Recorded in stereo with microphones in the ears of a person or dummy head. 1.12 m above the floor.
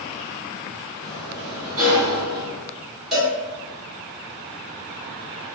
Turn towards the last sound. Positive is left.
turn(degrees=0)  # may be behind; listen again after turning